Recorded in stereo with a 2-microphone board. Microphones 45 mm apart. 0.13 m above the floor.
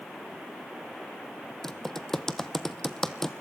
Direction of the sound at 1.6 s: 5° left (ahead or behind).